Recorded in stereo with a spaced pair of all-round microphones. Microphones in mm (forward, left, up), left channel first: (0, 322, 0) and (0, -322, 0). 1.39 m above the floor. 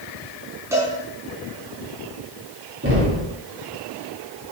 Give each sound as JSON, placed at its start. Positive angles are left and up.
{"t": 0.7, "sound": "a cowbell", "side_deg": -5, "distance_m": 3.5}
{"t": 2.8, "sound": "knocking", "side_deg": -20, "distance_m": 3.5}